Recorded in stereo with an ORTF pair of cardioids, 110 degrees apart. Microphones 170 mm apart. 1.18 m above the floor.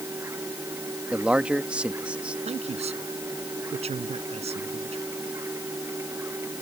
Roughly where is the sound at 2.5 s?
Ahead right.